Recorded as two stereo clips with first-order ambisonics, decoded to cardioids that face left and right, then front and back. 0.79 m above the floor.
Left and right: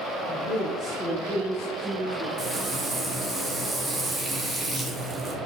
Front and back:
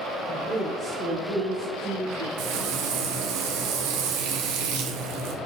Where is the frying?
175° right, 0.5 m.